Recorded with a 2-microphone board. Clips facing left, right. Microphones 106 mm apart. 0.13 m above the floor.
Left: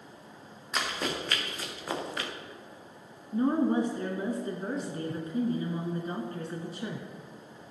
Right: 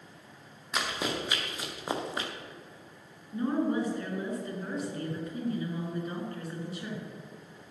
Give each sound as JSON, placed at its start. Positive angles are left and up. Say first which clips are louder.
{"t": 0.7, "sound": "running footsteps", "louder": "even", "side_deg": -5, "distance_m": 3.0}
{"t": 3.3, "sound": "a woman speaking", "louder": "left 3 dB", "side_deg": 30, "distance_m": 1.5}